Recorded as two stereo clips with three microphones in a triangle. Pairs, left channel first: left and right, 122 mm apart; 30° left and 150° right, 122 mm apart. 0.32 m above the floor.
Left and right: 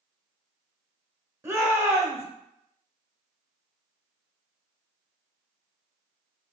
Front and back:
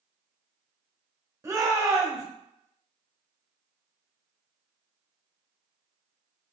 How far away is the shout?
About 1.2 m.